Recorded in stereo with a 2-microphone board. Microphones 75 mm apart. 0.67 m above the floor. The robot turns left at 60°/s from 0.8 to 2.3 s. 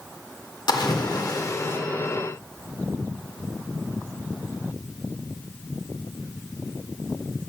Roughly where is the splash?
Left.